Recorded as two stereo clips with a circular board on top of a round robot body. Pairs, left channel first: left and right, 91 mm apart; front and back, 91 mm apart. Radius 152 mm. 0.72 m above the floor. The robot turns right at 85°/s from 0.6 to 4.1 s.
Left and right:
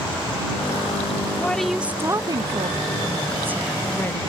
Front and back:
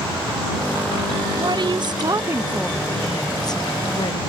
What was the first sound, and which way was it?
A woman speaking, 155° left.